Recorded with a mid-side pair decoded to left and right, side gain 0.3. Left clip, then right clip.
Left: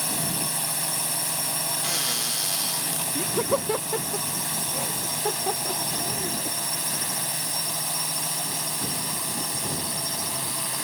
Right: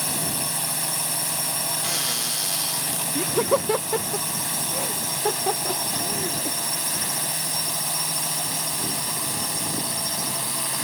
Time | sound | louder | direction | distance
0.0 | a drone | right 1 dB | 5° right | ?
1.8 | a cupboard door | even | 5° left | ?
3.1 | laughter | right 4 dB | 30° right | ?